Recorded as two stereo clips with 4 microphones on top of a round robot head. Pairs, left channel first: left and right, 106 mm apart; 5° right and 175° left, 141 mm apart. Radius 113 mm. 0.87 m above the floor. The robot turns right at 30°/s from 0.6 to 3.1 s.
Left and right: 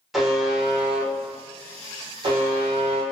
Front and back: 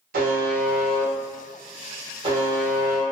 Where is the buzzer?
Straight behind, 0.7 m; by 3.0 s 105° right, 0.7 m.